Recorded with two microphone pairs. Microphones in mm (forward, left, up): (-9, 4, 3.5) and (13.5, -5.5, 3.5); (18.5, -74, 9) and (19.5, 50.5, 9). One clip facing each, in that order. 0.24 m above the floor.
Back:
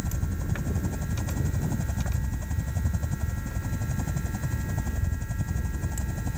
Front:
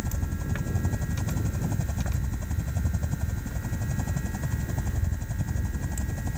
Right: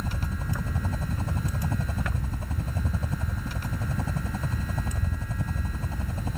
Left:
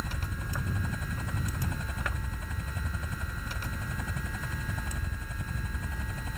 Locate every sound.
0.0 s a helicopter: 110° right